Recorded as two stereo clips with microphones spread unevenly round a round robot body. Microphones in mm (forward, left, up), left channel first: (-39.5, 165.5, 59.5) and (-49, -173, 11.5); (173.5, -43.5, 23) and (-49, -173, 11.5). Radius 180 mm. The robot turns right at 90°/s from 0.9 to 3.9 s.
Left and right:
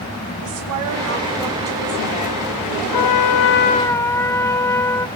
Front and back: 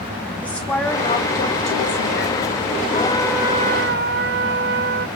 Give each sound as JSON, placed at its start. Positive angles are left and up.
{"t": 0.4, "sound": "a woman speaking", "azimuth_deg": -55, "distance_m": 2.5}
{"t": 2.9, "sound": "a trumpet", "azimuth_deg": 90, "distance_m": 0.8}